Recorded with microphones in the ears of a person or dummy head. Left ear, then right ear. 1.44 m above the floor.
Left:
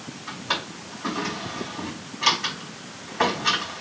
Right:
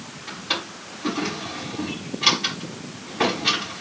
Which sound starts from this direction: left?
A drawer, at 0.3 s.